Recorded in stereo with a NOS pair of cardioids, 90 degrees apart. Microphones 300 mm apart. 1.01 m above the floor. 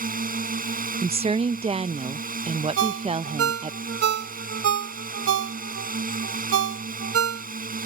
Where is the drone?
30° right.